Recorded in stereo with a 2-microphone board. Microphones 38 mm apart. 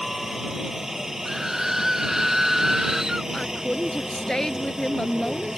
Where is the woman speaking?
15° left (ahead or behind).